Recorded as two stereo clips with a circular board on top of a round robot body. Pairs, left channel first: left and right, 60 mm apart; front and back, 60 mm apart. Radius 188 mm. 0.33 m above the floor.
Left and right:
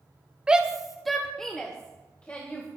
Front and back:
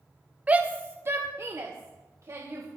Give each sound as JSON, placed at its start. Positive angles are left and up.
{"t": 0.5, "sound": "a shout", "azimuth_deg": -145, "distance_m": 1.5}